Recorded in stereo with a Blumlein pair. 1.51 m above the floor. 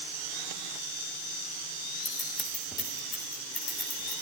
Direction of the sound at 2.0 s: 15° left.